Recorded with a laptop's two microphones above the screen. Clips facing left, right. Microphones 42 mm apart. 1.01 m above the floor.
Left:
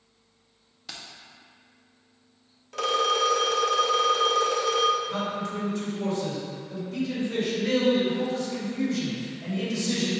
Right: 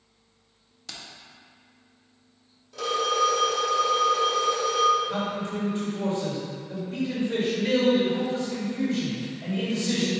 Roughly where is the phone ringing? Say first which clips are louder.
Left 1 dB; left.